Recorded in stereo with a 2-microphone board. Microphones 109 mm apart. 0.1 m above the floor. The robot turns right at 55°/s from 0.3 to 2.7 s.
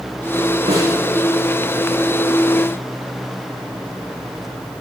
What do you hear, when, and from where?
0.7 s a snare drum: 65° right (ahead or behind), 7 m; by 0.9 s 75° right (ahead or behind), 7 m